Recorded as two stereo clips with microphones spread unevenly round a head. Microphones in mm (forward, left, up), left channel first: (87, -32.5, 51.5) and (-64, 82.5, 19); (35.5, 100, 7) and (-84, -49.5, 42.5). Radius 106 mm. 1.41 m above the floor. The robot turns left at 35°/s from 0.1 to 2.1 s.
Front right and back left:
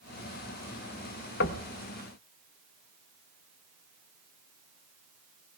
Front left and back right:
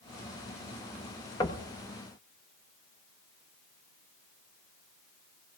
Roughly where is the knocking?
Ahead right.